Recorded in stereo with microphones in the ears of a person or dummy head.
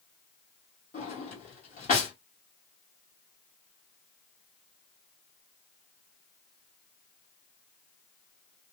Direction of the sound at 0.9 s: 45° left (ahead or behind).